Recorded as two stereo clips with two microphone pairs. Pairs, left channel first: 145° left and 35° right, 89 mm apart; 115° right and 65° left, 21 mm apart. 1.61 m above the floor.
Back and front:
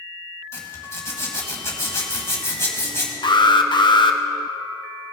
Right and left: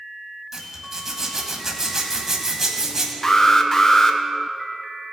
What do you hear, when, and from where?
0.5 s a zipper: 105° left, 1.8 m
3.2 s an alarm: 175° left, 0.7 m